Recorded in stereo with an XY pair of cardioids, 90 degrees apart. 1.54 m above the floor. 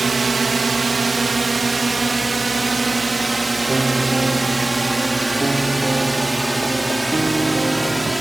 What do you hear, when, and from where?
0.0 s a drone: 40° right; by 8.2 s 15° right
3.7 s a piano: 25° right